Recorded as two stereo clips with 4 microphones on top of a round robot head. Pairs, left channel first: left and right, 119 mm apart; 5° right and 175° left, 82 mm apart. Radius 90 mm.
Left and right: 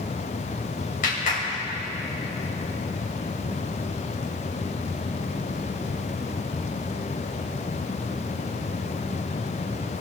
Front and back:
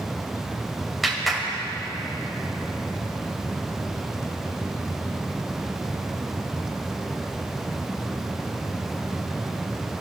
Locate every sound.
1.0 s a clap: 85° left, 3 m